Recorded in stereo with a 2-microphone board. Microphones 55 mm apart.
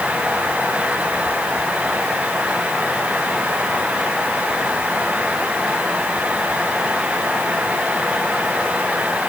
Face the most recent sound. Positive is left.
No sound to turn to.